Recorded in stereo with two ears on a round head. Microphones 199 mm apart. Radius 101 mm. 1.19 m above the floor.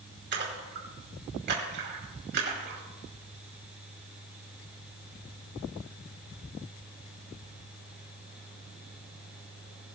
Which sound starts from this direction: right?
A splash, at 0.3 s.